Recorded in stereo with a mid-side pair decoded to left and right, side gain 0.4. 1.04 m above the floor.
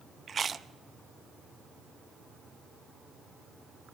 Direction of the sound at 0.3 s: 45° right.